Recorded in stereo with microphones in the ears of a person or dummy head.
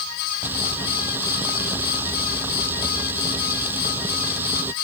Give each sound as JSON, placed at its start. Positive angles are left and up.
{"t": 0.4, "sound": "frying", "side_deg": -10}